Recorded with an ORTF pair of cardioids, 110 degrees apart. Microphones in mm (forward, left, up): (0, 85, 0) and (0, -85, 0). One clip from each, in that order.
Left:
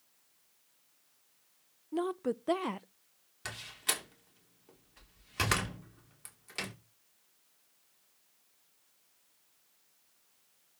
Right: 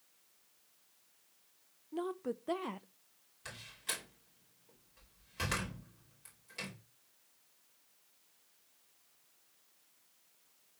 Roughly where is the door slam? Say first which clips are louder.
Left 6 dB; ahead left.